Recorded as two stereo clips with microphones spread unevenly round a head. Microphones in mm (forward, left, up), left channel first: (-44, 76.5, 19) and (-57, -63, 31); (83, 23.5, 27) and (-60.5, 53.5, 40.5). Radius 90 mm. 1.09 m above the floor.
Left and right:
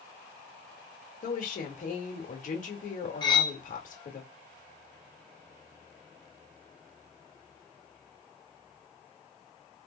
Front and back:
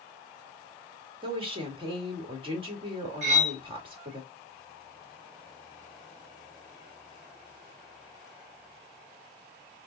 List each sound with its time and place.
1.2 s a woman speaking: 115° left, 1.6 m
3.2 s cutlery clinking: 145° left, 0.8 m